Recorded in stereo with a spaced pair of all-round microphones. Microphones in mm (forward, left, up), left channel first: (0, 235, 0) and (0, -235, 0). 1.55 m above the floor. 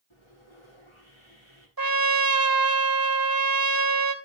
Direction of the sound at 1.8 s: 50° right (ahead or behind).